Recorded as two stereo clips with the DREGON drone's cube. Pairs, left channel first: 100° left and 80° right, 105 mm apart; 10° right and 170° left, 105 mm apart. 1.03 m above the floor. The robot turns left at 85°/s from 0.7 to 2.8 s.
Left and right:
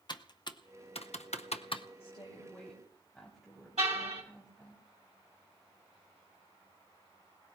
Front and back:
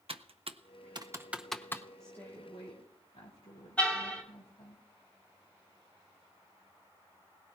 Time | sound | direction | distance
0.1 | typing on a keyboard | 145° left | 0.6 m
2.0 | a woman speaking | 75° left | 3 m
3.8 | a car horn | 85° right | 2.5 m